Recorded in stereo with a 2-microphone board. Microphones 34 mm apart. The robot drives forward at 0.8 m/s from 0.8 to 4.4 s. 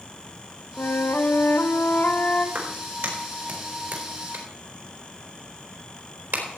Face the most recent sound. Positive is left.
turn(degrees=-80)